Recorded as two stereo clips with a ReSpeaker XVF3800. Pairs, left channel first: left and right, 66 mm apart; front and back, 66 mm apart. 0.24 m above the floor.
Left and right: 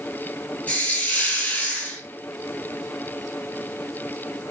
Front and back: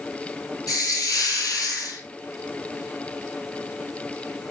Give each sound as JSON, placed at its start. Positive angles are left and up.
{"t": 0.7, "sound": "a hiss", "azimuth_deg": 20, "distance_m": 1.2}